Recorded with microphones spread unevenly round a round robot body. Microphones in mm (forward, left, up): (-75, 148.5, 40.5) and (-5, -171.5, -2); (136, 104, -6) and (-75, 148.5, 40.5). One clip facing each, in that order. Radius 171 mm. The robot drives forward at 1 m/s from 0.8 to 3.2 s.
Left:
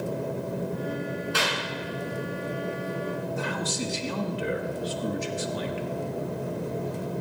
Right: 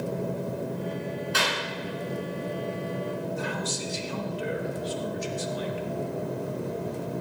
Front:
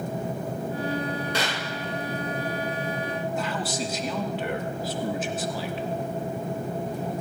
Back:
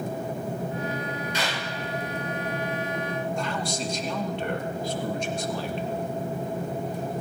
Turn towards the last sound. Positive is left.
turn(degrees=65)